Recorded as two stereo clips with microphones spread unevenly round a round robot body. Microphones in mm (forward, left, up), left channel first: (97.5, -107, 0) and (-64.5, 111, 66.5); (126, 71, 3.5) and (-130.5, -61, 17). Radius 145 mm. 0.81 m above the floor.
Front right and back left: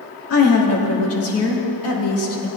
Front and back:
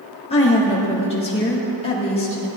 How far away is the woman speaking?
About 1.9 m.